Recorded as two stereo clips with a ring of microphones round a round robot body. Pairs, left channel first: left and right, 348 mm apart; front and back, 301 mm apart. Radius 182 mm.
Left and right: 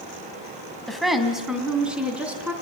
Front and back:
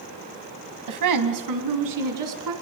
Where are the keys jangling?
I don't hear keys jangling.